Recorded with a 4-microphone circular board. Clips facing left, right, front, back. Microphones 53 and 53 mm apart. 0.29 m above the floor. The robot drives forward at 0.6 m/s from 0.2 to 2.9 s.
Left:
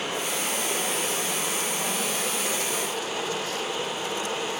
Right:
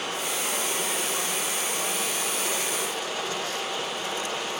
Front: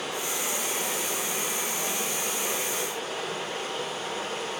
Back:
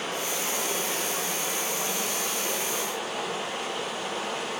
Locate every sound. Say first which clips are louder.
0.0 s running water: left 1 dB, back 1 dB; 155° left, 4.5 m; by 4.6 s 160° left, 6 m